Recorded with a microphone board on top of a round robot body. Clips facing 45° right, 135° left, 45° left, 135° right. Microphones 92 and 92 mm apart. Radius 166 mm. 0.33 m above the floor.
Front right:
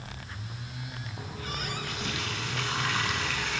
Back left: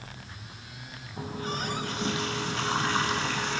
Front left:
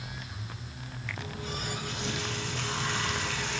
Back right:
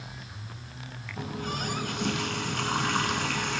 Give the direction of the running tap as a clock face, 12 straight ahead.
6 o'clock.